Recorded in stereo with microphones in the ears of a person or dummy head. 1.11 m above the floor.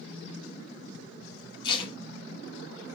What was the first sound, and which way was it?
Tape being pulled, 30° left (ahead or behind).